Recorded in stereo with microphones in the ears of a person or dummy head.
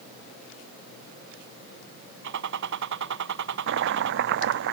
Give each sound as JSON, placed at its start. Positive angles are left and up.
{"t": 2.2, "sound": "a gunshot", "side_deg": -70}
{"t": 3.7, "sound": "chopping", "side_deg": -65}